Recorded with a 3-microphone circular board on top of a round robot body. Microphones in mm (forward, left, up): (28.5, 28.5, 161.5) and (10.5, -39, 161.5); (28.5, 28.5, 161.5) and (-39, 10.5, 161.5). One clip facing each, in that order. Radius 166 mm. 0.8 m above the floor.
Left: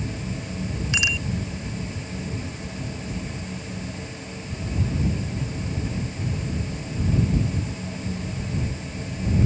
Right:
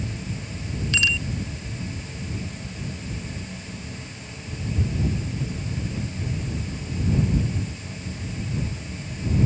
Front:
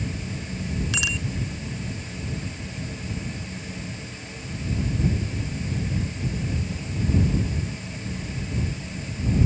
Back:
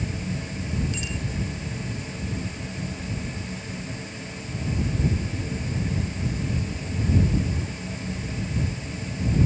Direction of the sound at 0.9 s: Straight ahead.